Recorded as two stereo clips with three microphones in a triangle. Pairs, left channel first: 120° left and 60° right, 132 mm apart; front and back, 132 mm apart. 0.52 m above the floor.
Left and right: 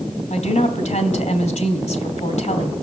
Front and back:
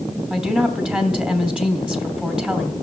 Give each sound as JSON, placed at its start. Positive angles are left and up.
{"t": 0.3, "sound": "a woman speaking", "azimuth_deg": 95, "distance_m": 2.5}